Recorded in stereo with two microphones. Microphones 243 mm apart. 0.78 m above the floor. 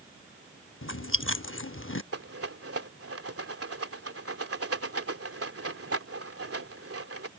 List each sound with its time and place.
0.8 s chewing: 55° left (ahead or behind)
2.1 s a rattle: 70° right (ahead or behind)